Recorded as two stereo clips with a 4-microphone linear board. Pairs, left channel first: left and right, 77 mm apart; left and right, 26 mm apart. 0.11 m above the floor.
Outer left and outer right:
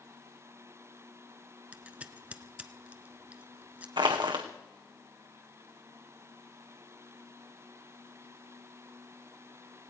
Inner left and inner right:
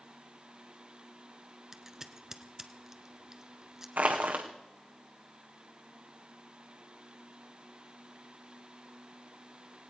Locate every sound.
1.7 s scissors: 20° right (ahead or behind), 0.9 m
4.0 s crushing: 85° right, 1.7 m